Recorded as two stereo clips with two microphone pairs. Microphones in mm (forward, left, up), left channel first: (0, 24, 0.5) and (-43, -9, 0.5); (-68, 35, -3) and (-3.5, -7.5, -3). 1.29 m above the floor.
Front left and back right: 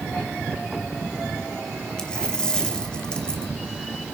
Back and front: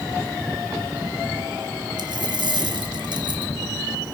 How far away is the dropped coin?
About 2.5 m.